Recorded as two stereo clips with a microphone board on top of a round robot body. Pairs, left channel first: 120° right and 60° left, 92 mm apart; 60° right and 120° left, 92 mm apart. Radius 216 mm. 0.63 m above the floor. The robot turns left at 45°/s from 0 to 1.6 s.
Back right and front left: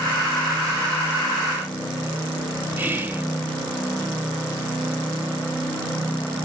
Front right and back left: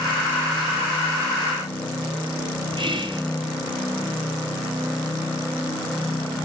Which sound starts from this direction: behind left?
Whispering, at 2.8 s.